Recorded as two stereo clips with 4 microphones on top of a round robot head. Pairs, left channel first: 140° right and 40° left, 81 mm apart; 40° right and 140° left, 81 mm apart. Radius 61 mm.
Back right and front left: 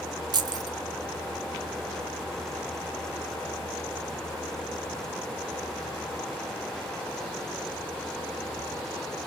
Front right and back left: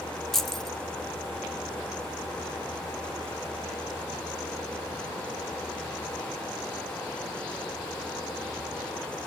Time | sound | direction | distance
0.3 | keys jangling | 45° left | 0.6 m